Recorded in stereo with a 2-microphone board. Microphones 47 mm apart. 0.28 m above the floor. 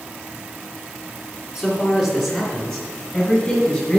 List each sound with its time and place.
1.6 s a man speaking: 5° right (ahead or behind), 3.5 m; by 4.0 s 15° left (ahead or behind), 5 m